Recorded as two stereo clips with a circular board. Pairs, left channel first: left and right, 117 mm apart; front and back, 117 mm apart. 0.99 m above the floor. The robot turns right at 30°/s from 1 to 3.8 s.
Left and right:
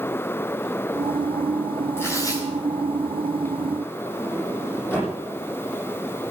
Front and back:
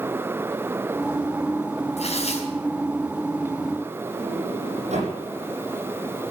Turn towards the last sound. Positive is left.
turn(degrees=160)